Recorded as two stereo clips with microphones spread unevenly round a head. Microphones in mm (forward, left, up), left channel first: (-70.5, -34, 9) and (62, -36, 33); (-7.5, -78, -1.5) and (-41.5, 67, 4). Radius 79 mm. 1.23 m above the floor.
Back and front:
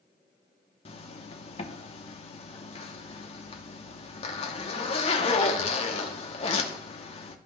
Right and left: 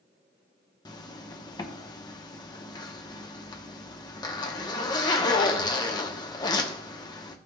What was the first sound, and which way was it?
A zipper, 135° right.